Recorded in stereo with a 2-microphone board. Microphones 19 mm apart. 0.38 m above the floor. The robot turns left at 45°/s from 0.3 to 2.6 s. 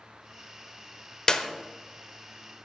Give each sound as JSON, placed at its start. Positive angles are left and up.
{"t": 1.3, "sound": "a clap", "side_deg": 35, "distance_m": 1.1}